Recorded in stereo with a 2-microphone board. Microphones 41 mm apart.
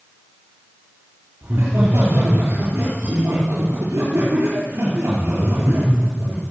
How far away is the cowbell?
No cowbell in this recording.